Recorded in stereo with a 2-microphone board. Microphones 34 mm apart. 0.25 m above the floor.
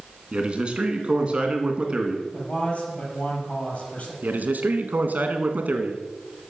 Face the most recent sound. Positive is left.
turn(degrees=-55)  # may be behind; listen again after turning